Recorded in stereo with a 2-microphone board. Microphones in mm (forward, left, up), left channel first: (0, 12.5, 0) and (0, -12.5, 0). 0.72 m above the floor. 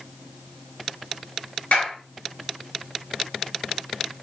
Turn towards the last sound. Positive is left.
turn(degrees=70)  # may be behind; listen again after turning